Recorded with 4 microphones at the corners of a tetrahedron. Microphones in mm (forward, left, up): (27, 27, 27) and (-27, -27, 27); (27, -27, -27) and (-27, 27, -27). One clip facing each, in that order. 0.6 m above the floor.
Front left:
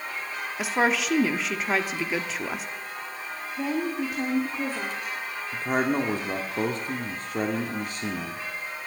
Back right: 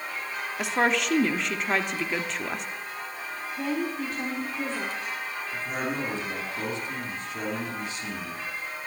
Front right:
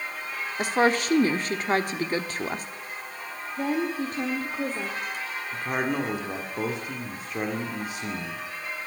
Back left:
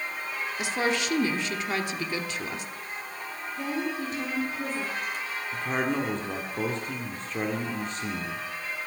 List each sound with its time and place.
0.6 s a woman speaking: 45° right, 1.1 m
3.6 s a woman speaking: 35° right, 1.8 m
5.5 s a man speaking: 35° left, 1.6 m